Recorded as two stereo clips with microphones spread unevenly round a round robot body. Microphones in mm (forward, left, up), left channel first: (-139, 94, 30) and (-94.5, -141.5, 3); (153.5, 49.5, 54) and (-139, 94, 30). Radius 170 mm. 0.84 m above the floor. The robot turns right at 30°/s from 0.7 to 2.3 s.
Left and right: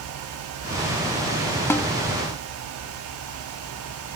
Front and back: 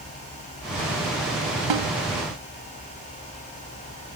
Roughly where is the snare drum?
Behind.